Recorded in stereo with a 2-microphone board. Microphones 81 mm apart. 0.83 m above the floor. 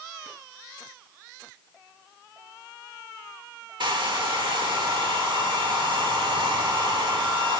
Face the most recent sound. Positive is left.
turn(degrees=-85)